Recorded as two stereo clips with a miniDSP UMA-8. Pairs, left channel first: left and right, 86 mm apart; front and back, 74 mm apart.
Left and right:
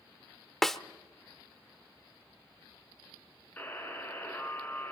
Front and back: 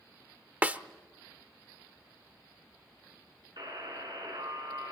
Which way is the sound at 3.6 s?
160° left.